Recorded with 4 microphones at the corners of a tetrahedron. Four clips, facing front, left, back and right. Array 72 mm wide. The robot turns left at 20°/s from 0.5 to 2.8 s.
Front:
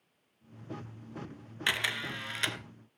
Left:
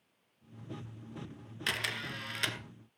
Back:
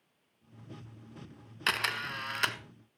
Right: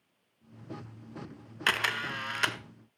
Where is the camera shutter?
105° right, 1.1 m; by 2.6 s 125° right, 1.1 m.